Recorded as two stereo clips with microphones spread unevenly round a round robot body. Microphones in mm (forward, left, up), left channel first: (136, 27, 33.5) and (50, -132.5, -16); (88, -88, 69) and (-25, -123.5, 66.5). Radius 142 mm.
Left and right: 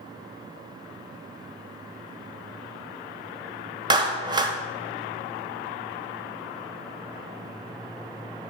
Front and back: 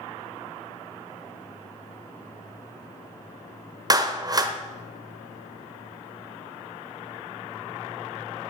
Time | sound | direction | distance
3.9 | a clap | 135° right | 1.2 m